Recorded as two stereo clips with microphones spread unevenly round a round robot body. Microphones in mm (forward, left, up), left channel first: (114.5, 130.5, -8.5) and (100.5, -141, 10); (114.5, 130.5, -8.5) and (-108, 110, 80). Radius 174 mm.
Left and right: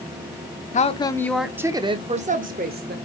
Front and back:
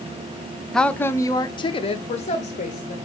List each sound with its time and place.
0.7 s a woman speaking: 55° left, 0.7 m; by 3.0 s 40° right, 1.3 m